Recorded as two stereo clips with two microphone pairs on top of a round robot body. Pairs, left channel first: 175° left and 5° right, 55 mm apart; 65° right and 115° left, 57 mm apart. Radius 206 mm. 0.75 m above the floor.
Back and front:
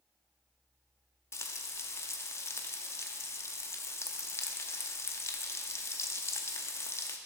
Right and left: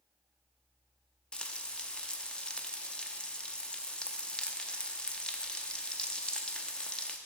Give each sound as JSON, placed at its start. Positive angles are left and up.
{"t": 1.3, "sound": "frying", "azimuth_deg": -140, "distance_m": 0.5}